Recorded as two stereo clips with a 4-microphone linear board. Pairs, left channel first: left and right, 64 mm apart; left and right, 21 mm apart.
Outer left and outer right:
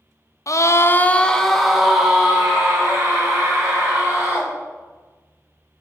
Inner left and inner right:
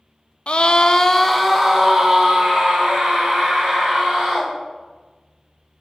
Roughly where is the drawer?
No drawer in this recording.